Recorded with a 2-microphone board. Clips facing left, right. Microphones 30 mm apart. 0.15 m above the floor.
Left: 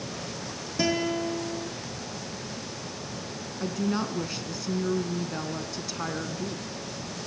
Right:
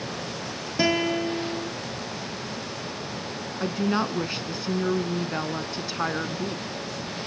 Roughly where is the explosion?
I don't hear an explosion.